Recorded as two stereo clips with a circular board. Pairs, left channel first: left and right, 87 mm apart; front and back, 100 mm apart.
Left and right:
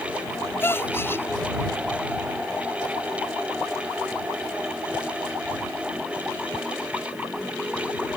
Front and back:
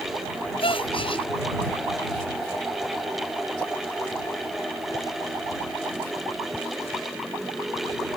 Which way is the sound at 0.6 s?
25° left.